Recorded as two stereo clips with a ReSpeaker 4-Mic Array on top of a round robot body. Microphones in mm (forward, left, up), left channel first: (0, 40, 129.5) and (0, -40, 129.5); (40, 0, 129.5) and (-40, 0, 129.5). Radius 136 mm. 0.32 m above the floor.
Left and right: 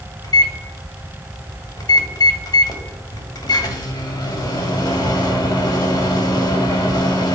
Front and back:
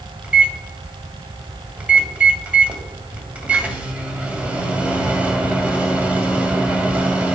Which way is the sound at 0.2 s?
110° left.